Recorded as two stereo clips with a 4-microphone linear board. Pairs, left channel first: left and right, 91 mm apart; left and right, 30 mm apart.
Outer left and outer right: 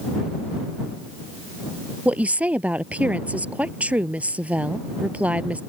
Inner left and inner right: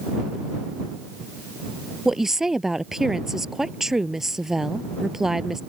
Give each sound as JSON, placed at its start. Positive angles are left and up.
{"t": 2.0, "sound": "a woman speaking", "side_deg": -15}